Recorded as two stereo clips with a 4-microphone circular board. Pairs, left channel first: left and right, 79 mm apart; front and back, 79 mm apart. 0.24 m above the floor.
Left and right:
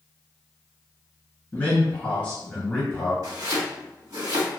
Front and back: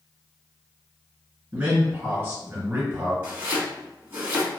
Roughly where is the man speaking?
Behind left.